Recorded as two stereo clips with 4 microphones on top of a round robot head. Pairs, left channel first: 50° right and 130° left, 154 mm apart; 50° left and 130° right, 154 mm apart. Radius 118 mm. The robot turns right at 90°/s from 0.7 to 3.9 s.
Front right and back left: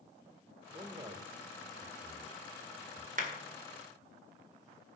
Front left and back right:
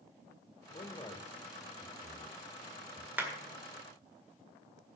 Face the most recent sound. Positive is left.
turn(degrees=-140)